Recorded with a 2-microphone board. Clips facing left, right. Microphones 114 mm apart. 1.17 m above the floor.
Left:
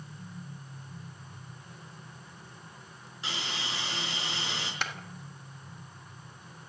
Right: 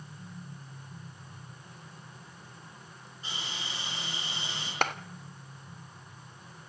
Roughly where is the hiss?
Left.